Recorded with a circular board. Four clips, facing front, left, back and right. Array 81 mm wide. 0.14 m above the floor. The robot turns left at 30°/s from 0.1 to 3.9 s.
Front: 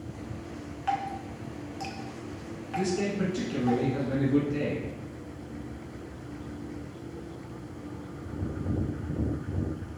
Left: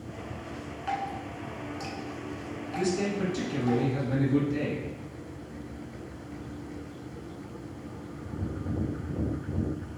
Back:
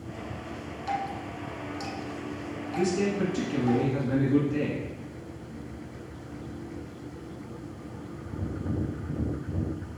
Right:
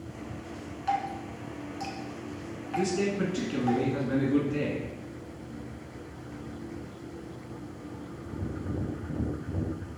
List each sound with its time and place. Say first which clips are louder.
0.9 s dripping: right 3 dB, front 1 dB; 20° left, 0.7 m; by 3.8 s 65° right, 0.7 m
2.8 s a man speaking: right 1 dB, back 2 dB; 75° right, 1.7 m; by 4.9 s 110° right, 1.7 m